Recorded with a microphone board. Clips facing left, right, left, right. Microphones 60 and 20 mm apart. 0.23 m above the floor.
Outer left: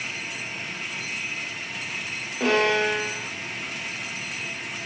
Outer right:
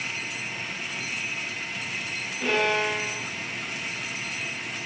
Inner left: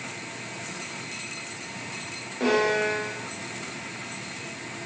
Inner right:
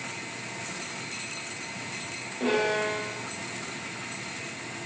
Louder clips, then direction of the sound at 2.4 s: Outer left 3 dB, inner left 3 dB; 75° left (ahead or behind).